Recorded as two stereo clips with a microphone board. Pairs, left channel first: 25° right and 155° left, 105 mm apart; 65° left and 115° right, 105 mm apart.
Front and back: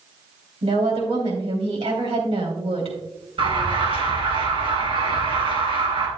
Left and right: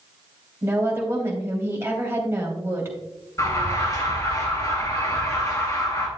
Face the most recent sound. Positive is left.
turn(degrees=125)